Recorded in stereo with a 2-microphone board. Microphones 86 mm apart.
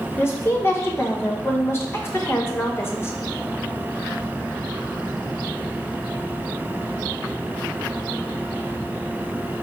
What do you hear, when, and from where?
0.2 s a woman speaking: 30° left (ahead or behind), 0.7 m